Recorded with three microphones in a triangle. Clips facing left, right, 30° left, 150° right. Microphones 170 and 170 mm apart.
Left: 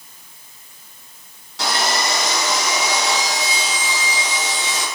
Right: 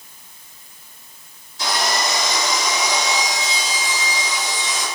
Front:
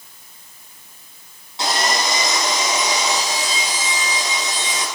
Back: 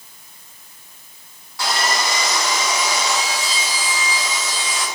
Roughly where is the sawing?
Left.